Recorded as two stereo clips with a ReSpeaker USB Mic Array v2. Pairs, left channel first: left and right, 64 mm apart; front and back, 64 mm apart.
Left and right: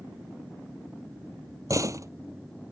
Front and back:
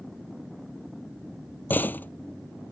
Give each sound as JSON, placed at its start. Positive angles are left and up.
{"t": 1.7, "sound": "a door slam", "azimuth_deg": -60}